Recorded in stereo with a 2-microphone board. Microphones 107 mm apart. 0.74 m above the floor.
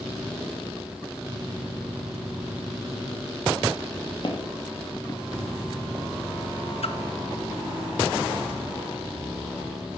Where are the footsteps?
45° left (ahead or behind), 1.3 m; by 6.0 s 15° right (ahead or behind), 0.9 m.